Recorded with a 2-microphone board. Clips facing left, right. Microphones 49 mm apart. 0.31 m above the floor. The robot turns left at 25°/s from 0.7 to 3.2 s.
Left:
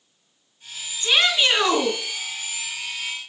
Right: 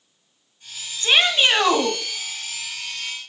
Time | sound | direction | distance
1.0 | a shout | 45° right (ahead or behind) | 1.9 m